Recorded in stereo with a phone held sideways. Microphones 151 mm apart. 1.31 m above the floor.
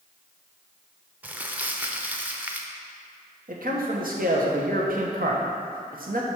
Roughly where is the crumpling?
Centre.